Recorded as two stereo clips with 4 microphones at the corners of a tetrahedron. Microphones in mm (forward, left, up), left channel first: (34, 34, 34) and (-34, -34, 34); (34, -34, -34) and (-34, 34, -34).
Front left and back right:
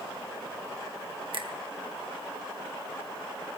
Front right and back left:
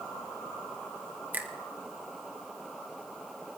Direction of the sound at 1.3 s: 155° right.